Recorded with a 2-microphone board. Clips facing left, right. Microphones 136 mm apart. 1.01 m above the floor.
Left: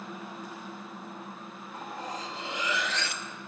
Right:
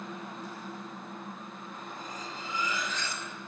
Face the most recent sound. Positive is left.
turn(degrees=85)